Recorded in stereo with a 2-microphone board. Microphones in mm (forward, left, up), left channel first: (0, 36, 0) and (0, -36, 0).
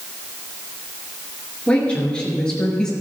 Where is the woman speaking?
15° left (ahead or behind), 3.5 m; by 2.9 s 5° left (ahead or behind), 4 m.